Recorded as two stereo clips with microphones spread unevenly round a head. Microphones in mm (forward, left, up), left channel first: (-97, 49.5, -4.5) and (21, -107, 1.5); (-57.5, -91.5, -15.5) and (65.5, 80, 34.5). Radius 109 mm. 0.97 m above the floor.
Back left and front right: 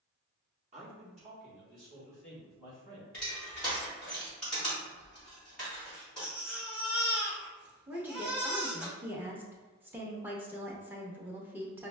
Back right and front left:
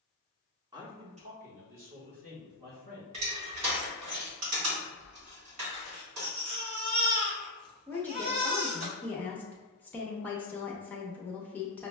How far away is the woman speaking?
About 0.6 m.